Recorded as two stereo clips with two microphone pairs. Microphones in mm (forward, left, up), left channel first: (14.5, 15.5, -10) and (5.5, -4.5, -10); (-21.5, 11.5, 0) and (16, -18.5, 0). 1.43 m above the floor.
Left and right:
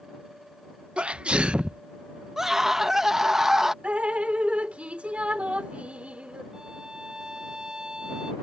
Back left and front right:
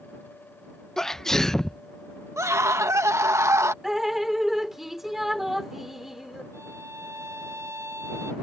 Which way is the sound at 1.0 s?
140° right.